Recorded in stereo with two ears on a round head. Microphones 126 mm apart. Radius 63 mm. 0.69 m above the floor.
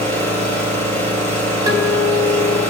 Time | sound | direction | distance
0.0 | an engine running | 50° right (ahead or behind) | 10 m
1.7 | a guitar | 25° right (ahead or behind) | 3 m